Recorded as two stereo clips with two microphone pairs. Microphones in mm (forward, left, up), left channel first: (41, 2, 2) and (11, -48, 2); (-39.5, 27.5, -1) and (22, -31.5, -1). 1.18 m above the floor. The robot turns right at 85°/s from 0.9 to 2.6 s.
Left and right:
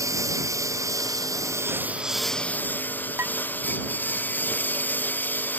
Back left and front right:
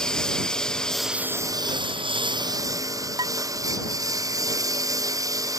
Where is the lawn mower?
140° right; by 5.6 s straight ahead.